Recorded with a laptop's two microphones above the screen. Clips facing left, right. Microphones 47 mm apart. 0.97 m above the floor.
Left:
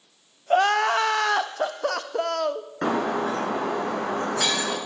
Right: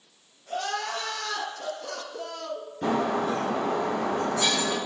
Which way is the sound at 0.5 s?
70° left (ahead or behind).